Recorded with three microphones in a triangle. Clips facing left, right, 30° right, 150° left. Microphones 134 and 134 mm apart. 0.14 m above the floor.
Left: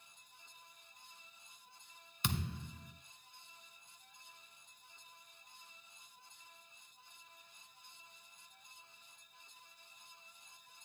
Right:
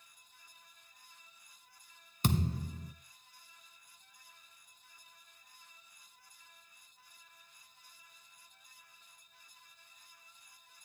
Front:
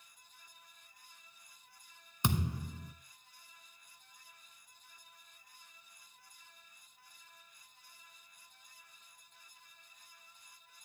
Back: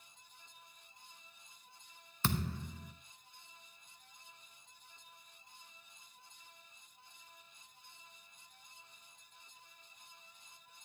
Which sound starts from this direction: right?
A thud, at 2.2 s.